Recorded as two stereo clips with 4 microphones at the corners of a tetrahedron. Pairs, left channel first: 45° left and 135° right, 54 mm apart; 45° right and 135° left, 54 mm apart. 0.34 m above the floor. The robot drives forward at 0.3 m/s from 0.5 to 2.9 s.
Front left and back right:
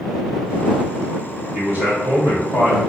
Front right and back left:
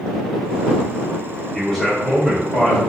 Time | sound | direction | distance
1.5 | a man speaking | 125° right | 1.5 m